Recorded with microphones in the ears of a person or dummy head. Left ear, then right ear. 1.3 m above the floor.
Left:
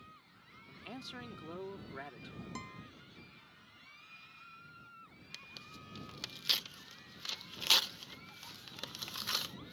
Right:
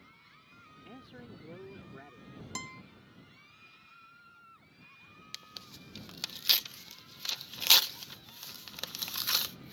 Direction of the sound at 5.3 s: 20° right (ahead or behind).